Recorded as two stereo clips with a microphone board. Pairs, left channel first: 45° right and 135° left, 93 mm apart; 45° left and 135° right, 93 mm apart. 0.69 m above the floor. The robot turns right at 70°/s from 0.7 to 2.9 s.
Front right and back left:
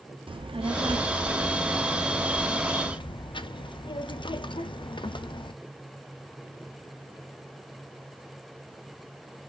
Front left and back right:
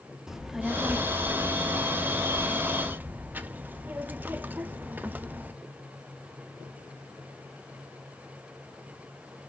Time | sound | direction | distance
0.3 | a child speaking | 140° left | 0.5 m